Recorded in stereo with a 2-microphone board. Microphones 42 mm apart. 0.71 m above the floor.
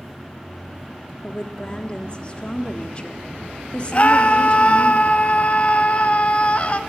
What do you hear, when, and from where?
1.2 s a woman speaking: 25° left (ahead or behind), 1.5 m
3.9 s a scream: 30° left (ahead or behind), 0.7 m